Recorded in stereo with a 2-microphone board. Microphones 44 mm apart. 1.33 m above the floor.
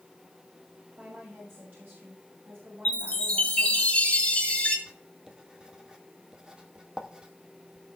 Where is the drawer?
I don't hear a drawer.